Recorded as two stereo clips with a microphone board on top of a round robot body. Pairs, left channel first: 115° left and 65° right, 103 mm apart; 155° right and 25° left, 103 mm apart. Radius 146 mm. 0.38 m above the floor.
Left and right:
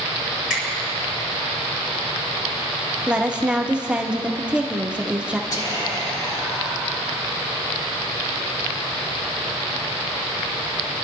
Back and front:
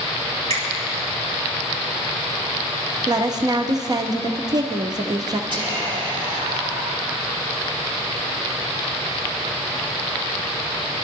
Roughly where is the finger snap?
Ahead.